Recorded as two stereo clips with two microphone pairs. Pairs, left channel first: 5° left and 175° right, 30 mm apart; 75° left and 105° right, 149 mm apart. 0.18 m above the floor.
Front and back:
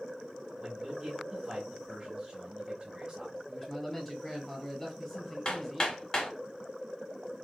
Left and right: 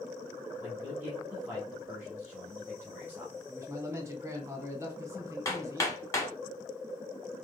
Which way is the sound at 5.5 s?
25° left.